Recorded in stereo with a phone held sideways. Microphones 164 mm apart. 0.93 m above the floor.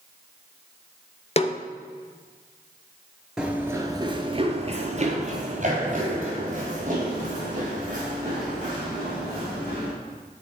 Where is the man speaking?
I don't hear a man speaking.